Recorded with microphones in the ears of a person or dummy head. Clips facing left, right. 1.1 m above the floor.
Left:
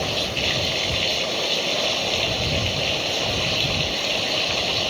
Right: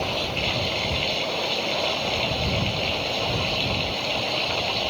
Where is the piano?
I don't hear a piano.